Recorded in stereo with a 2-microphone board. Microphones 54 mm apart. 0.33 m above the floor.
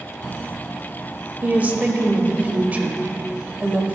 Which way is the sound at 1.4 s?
30° right (ahead or behind).